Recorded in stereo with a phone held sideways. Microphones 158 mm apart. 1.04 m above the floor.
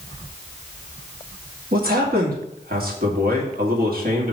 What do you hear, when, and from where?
1.7 s a man speaking: 70° right (ahead or behind), 1.9 m